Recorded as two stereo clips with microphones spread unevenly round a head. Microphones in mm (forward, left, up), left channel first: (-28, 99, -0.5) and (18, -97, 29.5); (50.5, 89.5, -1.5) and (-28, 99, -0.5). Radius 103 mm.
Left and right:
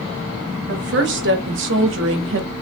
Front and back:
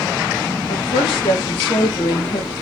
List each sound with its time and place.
0.7 s a woman speaking: 35° right, 1.9 m; by 2.5 s 55° right, 1.1 m